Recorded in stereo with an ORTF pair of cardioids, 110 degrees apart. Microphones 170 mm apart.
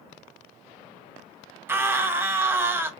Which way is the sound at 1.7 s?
15° right.